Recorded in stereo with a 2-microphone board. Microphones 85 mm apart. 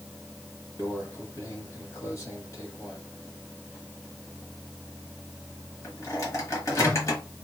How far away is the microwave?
About 1.3 m.